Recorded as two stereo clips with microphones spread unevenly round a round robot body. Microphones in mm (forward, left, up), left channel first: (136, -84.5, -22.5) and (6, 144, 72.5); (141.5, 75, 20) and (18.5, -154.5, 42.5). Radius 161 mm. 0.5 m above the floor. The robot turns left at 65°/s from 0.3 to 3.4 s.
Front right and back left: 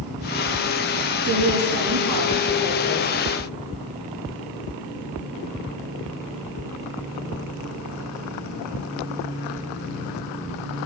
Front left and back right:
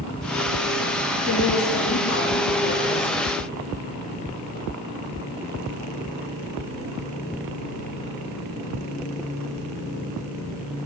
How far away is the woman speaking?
About 7.5 m.